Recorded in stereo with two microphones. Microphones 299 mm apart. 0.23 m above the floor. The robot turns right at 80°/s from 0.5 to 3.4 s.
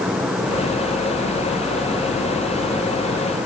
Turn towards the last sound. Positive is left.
No sound to turn to.